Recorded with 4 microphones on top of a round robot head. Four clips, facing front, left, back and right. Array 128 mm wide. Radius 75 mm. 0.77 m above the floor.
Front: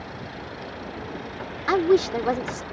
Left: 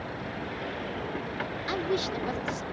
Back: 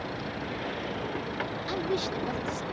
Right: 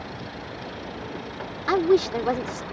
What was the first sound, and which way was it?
A woman speaking, 40° right.